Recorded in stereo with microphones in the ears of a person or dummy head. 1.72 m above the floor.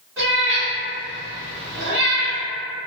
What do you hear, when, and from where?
0.2 s a cat meowing: 10° right (ahead or behind), 1.4 m